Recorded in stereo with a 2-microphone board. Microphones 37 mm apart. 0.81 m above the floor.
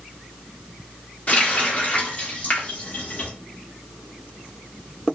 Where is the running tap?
35° left (ahead or behind), 1.1 m.